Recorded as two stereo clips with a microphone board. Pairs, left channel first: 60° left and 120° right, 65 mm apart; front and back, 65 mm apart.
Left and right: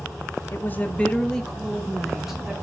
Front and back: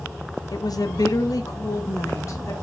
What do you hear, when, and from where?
0.5 s a woman speaking: 10° left, 0.8 m; by 2.5 s 35° right, 1.6 m